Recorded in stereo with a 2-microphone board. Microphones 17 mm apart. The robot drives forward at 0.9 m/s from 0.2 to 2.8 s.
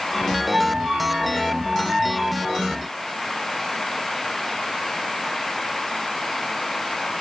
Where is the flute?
85° right, 0.8 m; by 2.8 s 20° right (ahead or behind), 2 m.